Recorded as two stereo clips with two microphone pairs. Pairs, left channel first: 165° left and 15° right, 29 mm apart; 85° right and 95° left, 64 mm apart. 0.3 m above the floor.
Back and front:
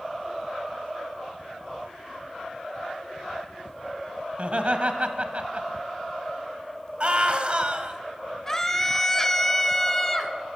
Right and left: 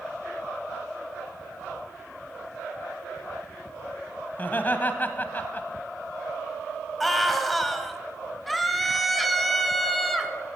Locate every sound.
4.3 s laughter: 35° right, 1.4 m
7.0 s a scream: straight ahead, 1.5 m
8.5 s a scream: 175° right, 0.9 m